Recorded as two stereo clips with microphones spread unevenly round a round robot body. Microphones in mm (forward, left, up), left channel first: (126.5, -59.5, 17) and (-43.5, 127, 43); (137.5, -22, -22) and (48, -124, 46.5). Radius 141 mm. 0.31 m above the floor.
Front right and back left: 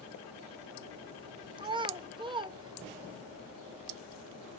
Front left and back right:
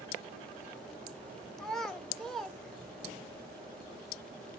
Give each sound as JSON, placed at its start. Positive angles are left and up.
{"t": 1.6, "sound": "a child speaking", "azimuth_deg": 65, "distance_m": 0.5}